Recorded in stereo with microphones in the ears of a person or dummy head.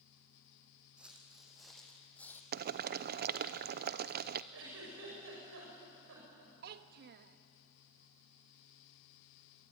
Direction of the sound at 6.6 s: 55° right (ahead or behind).